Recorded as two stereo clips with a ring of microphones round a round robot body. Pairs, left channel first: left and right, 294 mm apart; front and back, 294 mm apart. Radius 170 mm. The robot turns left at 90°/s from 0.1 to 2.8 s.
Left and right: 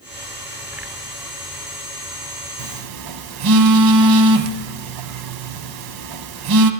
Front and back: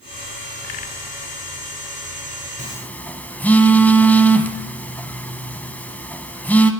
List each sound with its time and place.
2.6 s a phone buzzing: 65° right, 0.7 m; by 6.7 s 85° right, 0.7 m